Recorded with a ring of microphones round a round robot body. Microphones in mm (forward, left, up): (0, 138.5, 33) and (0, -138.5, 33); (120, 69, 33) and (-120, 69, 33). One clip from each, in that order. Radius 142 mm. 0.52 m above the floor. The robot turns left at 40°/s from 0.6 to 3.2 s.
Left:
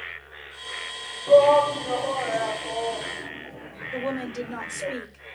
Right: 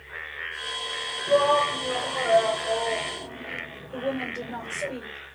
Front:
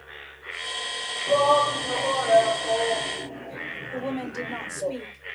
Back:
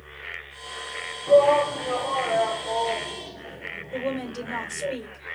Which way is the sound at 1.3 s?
80° left.